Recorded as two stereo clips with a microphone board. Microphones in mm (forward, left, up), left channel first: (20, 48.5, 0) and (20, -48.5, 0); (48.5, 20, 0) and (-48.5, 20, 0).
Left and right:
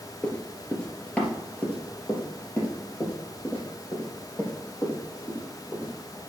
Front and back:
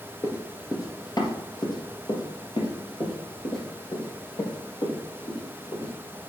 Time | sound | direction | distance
0.2 | running footsteps | 20° left | 1.6 m